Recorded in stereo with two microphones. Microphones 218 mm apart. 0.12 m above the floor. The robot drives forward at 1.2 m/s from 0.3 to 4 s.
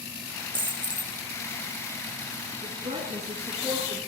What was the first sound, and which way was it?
A dropped coin, 60° right (ahead or behind).